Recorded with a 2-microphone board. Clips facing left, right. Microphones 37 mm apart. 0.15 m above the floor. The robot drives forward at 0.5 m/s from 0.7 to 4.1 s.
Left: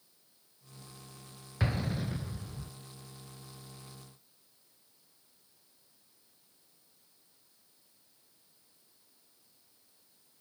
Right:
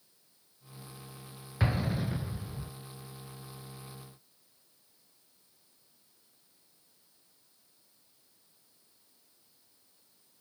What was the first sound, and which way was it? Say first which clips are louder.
An explosion: right 2 dB; 5° right (ahead or behind).